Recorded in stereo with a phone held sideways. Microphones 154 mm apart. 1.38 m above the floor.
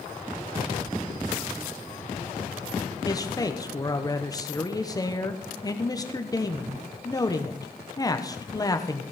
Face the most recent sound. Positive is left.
turn(degrees=25)  # may be behind; listen again after turning